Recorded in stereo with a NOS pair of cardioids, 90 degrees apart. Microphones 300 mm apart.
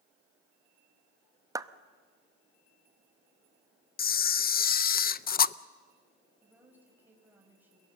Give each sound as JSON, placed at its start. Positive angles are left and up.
{"t": 1.6, "sound": "a clap", "azimuth_deg": -10, "distance_m": 0.8}
{"t": 4.0, "sound": "a camera shutter", "azimuth_deg": 35, "distance_m": 0.5}
{"t": 6.4, "sound": "a woman speaking", "azimuth_deg": -5, "distance_m": 6.0}